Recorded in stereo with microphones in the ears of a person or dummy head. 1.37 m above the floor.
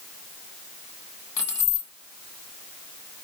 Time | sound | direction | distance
1.4 | keys jangling | 25° left (ahead or behind) | 2 m